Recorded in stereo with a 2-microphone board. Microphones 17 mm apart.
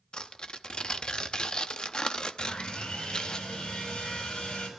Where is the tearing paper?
60° left (ahead or behind), 0.8 m.